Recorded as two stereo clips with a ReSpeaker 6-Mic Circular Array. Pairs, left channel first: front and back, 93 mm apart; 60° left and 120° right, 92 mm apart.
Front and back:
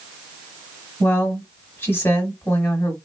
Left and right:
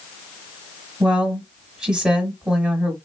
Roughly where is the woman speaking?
Ahead right.